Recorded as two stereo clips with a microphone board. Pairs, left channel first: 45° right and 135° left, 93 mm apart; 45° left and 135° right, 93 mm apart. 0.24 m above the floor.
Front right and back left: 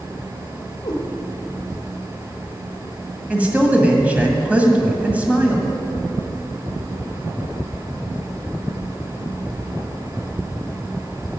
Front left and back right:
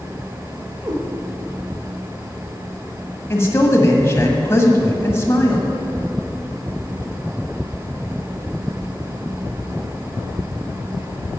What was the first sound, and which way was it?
A cat meowing, 85° right.